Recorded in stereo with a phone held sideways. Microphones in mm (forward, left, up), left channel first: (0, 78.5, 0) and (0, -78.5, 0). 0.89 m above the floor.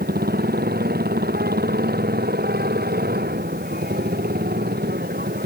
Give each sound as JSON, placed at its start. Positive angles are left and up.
{"t": 0.0, "sound": "a motorcycle", "side_deg": -85}